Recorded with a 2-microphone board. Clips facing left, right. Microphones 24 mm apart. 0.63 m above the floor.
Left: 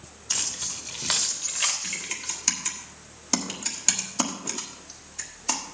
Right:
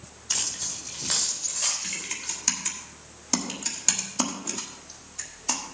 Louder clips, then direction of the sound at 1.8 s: Left 1 dB; 10° left (ahead or behind).